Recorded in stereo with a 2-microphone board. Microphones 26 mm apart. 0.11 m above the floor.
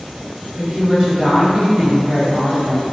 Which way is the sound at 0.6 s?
25° right (ahead or behind).